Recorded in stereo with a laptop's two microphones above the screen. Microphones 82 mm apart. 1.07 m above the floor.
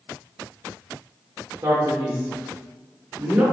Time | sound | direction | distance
1.6 | a man speaking | 25° right (ahead or behind) | 1.1 m